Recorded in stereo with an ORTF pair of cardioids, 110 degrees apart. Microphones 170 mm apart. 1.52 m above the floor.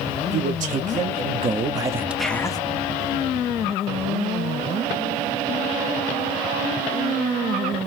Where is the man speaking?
55° right, 1.3 m; by 2.6 s 30° left, 0.5 m.